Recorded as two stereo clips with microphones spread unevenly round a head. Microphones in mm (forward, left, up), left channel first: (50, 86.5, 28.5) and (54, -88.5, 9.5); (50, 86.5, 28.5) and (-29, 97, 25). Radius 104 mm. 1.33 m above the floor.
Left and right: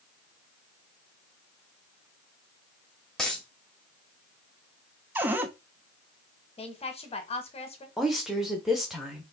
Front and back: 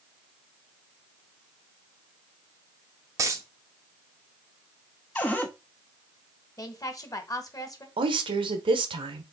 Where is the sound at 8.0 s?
175° right, 0.9 m.